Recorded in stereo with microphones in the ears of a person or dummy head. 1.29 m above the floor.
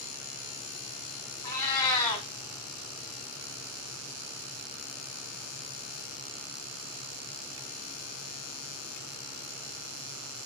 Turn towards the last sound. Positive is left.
turn(degrees=15)  # may be behind; listen again after turning